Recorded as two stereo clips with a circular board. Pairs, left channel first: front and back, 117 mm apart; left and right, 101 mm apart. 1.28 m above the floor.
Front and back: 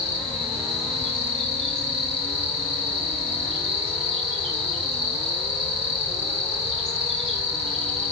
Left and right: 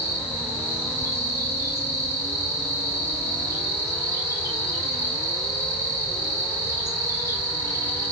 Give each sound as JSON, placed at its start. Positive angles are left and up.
{"t": 0.0, "sound": "an insect", "azimuth_deg": 155, "distance_m": 5.5}